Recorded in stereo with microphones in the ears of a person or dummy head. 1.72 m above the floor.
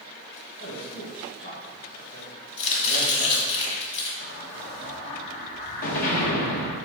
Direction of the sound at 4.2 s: 50° left (ahead or behind).